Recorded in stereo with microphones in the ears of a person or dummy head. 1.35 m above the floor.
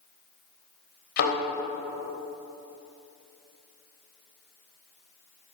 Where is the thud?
60° left (ahead or behind), 3.5 m.